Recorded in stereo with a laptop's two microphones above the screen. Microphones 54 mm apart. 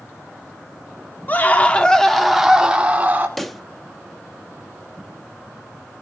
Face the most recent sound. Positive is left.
turn(degrees=5)  # may be behind; listen again after turning